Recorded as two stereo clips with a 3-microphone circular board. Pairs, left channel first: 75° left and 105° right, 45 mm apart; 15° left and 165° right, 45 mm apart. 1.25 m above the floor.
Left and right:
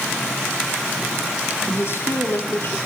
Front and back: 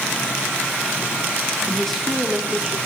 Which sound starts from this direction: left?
A woman speaking, at 1.7 s.